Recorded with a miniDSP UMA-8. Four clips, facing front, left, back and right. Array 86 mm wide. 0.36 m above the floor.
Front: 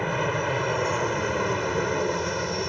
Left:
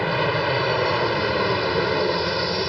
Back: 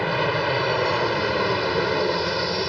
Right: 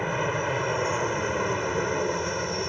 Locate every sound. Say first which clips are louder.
0.0 s an aircraft: left 5 dB, back 3 dB; 130° left